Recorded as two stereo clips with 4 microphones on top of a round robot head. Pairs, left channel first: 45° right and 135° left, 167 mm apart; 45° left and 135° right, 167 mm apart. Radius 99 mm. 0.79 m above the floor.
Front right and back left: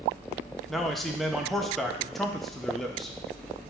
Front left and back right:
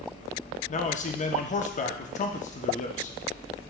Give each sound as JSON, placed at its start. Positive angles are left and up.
{"t": 0.7, "sound": "a man speaking", "azimuth_deg": 45, "distance_m": 0.6}